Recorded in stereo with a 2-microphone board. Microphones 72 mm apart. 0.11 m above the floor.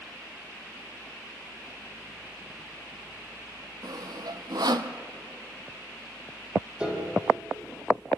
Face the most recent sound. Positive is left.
turn(degrees=-10)  # may be behind; listen again after turning